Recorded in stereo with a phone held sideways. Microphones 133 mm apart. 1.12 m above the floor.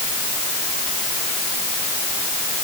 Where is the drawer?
I don't hear a drawer.